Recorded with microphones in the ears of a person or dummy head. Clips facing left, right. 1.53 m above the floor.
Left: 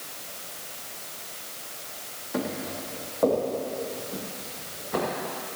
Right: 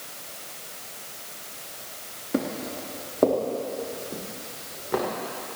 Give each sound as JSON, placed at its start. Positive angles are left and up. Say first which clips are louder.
{"t": 2.3, "sound": "footsteps", "louder": "right 3 dB", "side_deg": -40, "distance_m": 3.5}